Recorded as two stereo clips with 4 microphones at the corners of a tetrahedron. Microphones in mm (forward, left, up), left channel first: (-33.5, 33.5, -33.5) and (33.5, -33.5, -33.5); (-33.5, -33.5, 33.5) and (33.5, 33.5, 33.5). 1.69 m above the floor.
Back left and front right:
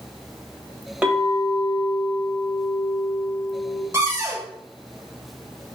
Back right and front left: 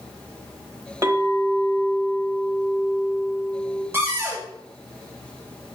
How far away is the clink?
About 1.0 m.